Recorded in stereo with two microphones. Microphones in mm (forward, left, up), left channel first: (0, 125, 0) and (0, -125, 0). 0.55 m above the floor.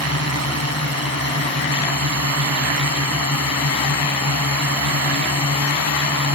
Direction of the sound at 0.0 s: 70° right (ahead or behind).